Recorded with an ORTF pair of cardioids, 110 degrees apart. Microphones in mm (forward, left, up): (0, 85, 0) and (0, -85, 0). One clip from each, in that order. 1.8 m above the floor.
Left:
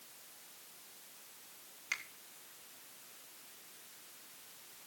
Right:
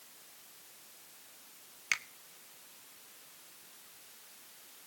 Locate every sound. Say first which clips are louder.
1.9 s a finger snap: right 6 dB; 50° right, 1.8 m